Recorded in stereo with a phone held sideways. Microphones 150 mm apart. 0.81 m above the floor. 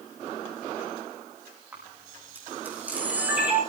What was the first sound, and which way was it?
A camera shutter, 10° right (ahead or behind).